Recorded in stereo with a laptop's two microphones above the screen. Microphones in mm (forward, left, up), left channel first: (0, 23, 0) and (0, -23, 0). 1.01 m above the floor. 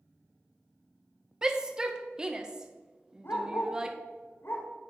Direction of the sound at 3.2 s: 55° left (ahead or behind).